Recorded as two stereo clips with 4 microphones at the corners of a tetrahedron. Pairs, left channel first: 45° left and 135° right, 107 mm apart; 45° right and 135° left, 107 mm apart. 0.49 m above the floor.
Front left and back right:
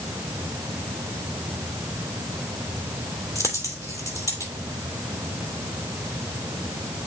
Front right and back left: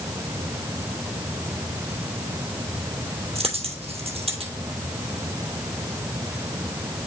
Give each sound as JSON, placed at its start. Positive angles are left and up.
{"t": 3.4, "sound": "a dropped coin", "azimuth_deg": 105, "distance_m": 2.5}